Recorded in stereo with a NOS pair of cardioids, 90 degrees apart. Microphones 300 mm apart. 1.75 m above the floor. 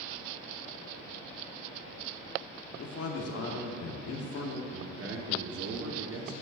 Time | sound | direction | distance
2.8 | a man speaking | 50° left | 1.3 m
4.7 | a man speaking | 45° right | 1.4 m